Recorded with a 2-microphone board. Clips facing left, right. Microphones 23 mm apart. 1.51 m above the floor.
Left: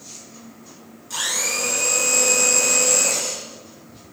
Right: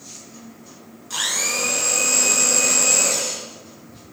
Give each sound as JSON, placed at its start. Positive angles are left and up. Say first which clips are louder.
{"t": 1.1, "sound": "a blender", "louder": "right 1 dB", "side_deg": -15, "distance_m": 3.5}